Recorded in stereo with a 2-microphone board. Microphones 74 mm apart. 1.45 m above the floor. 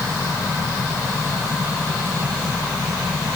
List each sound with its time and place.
Only background noise.